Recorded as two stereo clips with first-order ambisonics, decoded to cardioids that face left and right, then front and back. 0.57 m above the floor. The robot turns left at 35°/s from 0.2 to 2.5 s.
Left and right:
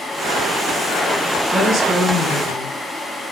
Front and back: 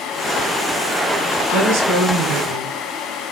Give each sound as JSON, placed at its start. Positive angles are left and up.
{"t": 1.5, "sound": "a woman speaking", "azimuth_deg": -150, "distance_m": 2.0}